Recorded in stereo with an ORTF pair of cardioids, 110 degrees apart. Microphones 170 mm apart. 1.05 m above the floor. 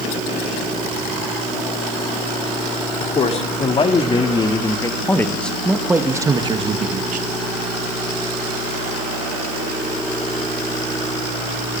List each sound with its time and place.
3.0 s a man speaking: 40° left, 3 m; by 7.3 s 60° right, 1.5 m